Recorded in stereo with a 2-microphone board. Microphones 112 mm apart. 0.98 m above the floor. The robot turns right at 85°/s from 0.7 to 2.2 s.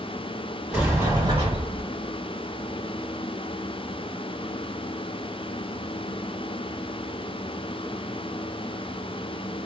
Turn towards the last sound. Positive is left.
turn(degrees=-45)